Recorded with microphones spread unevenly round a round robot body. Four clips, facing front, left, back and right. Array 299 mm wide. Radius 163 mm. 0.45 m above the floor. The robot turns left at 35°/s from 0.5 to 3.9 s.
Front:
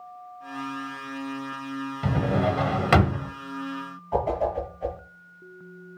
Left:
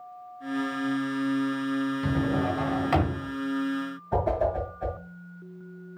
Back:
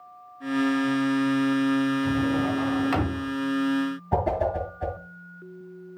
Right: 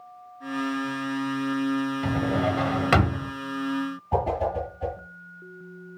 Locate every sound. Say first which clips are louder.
2.0 s a drawer: right 1 dB, back 1 dB; straight ahead, 1.3 m; by 3.3 s 45° right, 1.3 m
4.1 s a whoosh: even, front 1 dB; 170° right, 5 m